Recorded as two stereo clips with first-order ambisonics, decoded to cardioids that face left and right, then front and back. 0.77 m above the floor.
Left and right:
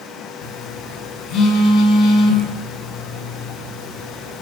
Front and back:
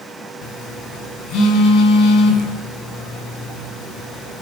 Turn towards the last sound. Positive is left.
turn(degrees=45)